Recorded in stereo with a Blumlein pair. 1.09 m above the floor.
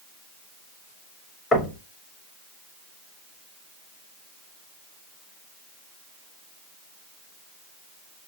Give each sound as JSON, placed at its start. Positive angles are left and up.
{"t": 1.5, "sound": "knocking", "azimuth_deg": 15, "distance_m": 1.1}